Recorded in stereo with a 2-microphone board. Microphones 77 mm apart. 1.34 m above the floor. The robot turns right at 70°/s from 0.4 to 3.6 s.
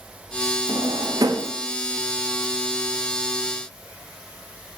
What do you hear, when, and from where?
0.7 s a drawer: 60° right (ahead or behind), 1.2 m; by 1.5 s 45° right (ahead or behind), 1.2 m